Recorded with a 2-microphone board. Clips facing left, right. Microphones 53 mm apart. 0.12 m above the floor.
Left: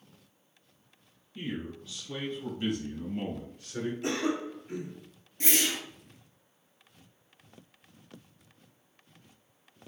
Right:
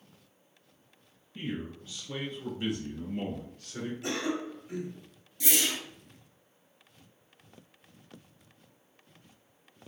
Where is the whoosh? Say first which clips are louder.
Left 1 dB; 40° left (ahead or behind), 0.9 m.